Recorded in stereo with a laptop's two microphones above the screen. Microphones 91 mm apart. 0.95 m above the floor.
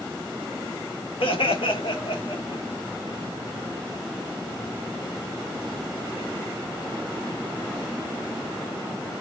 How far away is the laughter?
About 1.3 m.